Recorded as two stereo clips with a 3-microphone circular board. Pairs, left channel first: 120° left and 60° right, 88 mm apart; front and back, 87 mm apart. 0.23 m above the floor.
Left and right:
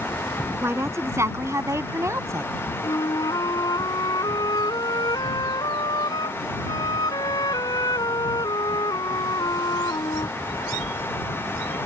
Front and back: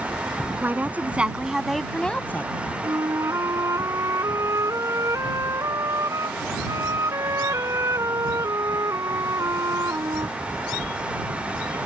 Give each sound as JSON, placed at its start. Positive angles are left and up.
{"t": 0.6, "sound": "a woman speaking", "azimuth_deg": -115}
{"t": 2.8, "sound": "a flute", "azimuth_deg": 140}